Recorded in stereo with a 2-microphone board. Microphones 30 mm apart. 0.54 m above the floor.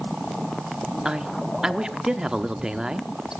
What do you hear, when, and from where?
1.1 s a man speaking: 25° right (ahead or behind), 1.0 m